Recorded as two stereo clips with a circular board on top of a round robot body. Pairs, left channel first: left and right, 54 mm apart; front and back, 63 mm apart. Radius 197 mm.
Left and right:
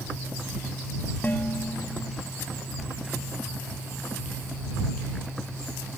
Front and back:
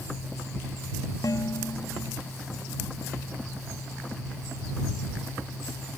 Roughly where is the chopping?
I don't hear chopping.